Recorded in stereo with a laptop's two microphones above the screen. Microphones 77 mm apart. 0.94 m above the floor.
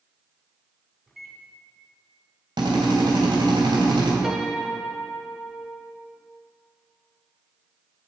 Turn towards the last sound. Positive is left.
turn(degrees=-5)  # may be behind; listen again after turning